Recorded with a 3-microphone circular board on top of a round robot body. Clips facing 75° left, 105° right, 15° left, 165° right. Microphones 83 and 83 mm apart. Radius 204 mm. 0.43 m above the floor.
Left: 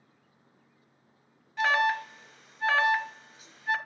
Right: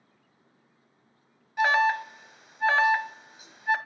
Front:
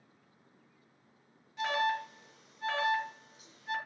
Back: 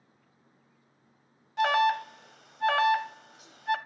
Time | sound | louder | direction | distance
1.6 | an alarm | right 3 dB, back 7 dB | straight behind | 1.2 m